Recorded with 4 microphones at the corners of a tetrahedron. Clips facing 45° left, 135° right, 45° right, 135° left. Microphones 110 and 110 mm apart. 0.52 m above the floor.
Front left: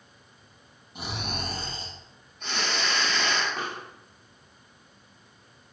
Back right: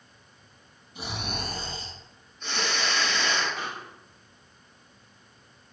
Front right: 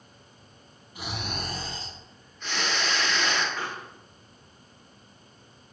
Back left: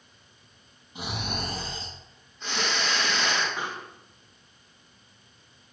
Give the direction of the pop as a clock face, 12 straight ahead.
10 o'clock.